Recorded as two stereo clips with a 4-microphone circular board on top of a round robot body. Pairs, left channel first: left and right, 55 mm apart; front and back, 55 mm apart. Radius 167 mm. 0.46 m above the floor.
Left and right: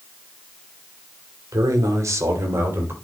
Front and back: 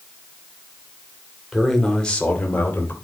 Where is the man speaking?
90° right, 2.5 m; by 3.0 s 50° right, 3 m.